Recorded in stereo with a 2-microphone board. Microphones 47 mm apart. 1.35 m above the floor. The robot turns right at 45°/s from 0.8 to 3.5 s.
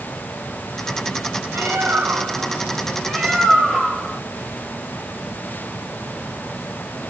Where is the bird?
75° right, 3 m; by 4.2 s 15° left, 3 m.